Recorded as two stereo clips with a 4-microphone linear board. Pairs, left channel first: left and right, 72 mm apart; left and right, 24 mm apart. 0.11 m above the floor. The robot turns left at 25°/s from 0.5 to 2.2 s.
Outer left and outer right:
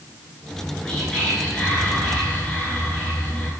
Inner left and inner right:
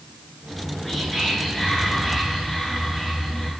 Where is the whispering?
10° left (ahead or behind), 1.2 m; by 3.5 s 20° left (ahead or behind), 1.2 m.